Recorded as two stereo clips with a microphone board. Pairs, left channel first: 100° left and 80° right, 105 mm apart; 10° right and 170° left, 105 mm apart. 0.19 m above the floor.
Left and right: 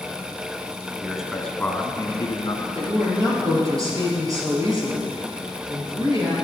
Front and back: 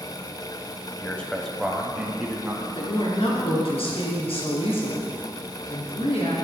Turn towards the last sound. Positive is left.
turn(degrees=-25)